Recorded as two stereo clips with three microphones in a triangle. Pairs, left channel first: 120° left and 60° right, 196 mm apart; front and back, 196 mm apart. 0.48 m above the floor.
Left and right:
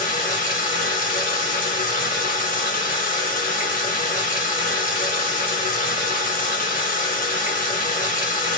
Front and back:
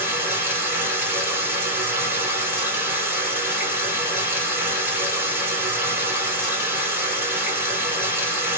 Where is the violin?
No violin in this recording.